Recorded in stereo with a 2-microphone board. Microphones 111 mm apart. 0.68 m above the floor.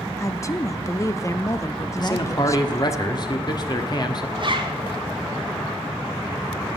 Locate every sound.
0.2 s a woman speaking: 25° left (ahead or behind), 0.6 m
2.0 s a man speaking: 40° left (ahead or behind), 1.2 m
4.4 s a zipper: 50° right (ahead or behind), 1.6 m